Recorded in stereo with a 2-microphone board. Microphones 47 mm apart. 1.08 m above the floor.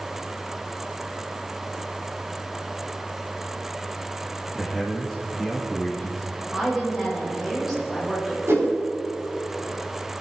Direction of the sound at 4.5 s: 5° left (ahead or behind).